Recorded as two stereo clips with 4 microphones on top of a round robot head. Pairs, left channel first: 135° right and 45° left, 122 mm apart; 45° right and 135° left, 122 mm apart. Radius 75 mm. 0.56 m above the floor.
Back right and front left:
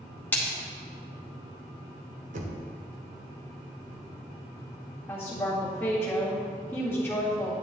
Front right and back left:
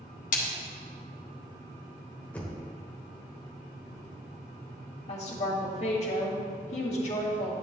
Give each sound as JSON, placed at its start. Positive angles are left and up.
{"t": 0.3, "sound": "a splash", "azimuth_deg": -60, "distance_m": 1.8}
{"t": 2.3, "sound": "knocking", "azimuth_deg": 35, "distance_m": 1.2}
{"t": 5.1, "sound": "a woman speaking", "azimuth_deg": -60, "distance_m": 1.9}